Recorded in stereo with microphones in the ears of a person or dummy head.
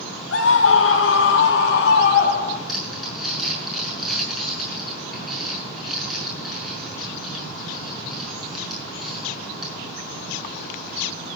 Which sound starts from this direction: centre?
Crumpling, at 2.7 s.